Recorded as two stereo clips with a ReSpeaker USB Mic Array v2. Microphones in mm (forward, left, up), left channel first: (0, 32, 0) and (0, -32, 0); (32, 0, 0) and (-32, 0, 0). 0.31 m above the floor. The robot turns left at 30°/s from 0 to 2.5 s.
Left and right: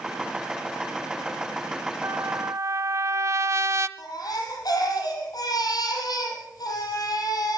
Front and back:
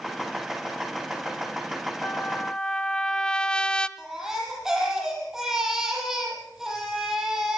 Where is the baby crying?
100° left, 6.5 m.